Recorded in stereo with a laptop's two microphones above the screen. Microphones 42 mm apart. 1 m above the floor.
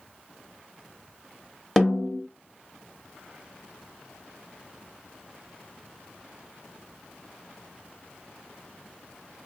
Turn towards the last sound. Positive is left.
turn(degrees=5)  # may be behind; listen again after turning